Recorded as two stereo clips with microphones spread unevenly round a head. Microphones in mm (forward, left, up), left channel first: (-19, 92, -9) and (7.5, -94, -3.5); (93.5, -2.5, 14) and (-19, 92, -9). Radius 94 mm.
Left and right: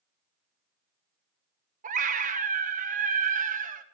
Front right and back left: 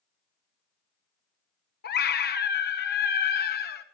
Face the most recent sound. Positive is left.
turn(degrees=-30)